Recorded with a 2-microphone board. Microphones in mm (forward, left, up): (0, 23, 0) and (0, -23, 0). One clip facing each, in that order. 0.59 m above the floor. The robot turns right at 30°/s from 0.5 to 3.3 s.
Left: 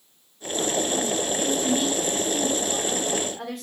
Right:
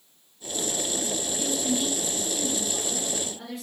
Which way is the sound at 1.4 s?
45° left.